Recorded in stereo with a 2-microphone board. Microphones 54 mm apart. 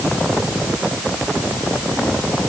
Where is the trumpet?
I don't hear a trumpet.